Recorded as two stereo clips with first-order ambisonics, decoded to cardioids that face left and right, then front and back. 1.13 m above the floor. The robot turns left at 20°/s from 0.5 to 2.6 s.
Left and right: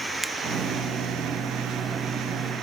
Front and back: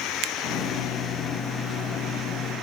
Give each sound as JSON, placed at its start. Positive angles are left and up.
{"t": 0.2, "sound": "a finger snap", "azimuth_deg": -170}